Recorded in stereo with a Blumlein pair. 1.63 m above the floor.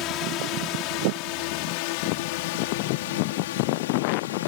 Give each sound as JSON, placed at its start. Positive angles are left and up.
{"t": 0.0, "sound": "a drone", "azimuth_deg": 40}